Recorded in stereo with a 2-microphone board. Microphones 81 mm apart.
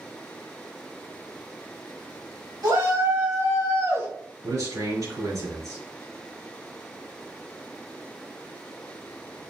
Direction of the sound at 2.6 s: 60° right (ahead or behind).